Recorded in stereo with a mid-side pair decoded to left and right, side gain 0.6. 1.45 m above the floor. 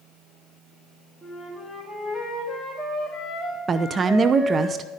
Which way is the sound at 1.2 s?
Straight ahead.